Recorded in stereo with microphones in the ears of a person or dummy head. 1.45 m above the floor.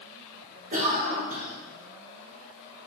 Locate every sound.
0.7 s a cough: 50° right (ahead or behind), 1.6 m